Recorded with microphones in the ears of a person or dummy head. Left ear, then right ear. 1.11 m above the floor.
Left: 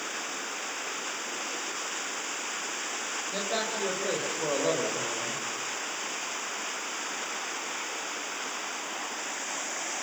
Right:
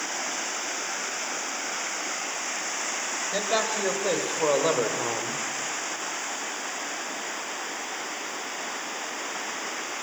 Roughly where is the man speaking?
Centre.